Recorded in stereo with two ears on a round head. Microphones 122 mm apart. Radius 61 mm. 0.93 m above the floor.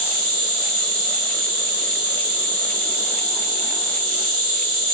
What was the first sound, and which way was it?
An insect, 65° right (ahead or behind).